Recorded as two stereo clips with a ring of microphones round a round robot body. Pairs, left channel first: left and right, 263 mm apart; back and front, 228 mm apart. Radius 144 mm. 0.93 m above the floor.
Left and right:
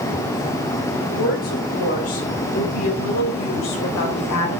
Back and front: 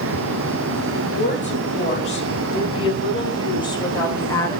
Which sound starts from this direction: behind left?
A woman speaking, at 1.1 s.